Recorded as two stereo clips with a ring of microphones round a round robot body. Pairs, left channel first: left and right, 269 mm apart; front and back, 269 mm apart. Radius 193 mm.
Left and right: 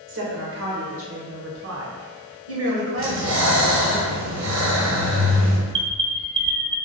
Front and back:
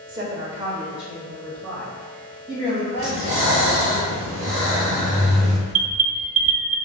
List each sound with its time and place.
0.1 s a woman speaking: 110° right, 1.9 m; by 4.0 s 60° right, 3 m
3.0 s breathing: 105° right, 1.7 m
5.7 s an alarm: 150° right, 0.5 m